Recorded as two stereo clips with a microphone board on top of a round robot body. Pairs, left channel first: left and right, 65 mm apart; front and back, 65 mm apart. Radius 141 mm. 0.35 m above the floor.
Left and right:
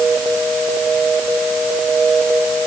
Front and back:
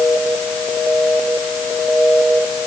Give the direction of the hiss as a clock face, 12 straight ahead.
I don't hear a hiss.